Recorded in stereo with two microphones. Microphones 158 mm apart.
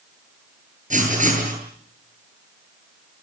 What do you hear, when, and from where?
0.9 s writing: 55° right (ahead or behind), 9 m